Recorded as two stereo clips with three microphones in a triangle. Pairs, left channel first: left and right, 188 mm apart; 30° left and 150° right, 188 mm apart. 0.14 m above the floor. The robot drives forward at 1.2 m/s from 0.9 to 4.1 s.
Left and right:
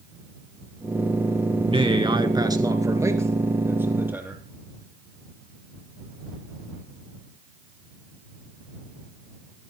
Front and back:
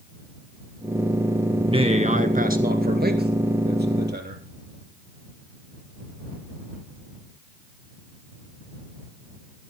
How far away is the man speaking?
About 1.4 m.